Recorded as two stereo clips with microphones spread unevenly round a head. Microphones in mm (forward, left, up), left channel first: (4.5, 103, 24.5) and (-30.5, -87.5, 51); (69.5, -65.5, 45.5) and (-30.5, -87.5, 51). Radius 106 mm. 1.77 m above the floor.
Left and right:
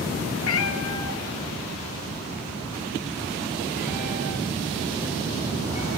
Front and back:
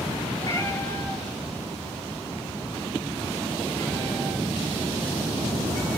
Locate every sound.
0.4 s a cat meowing: 90° left, 3 m; by 6.0 s 140° left, 6 m